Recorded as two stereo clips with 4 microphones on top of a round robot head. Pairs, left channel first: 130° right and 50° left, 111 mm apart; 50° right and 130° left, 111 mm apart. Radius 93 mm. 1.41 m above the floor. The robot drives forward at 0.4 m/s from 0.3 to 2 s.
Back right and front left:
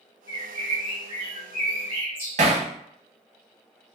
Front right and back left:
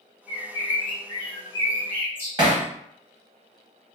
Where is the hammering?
80° left, 0.5 m.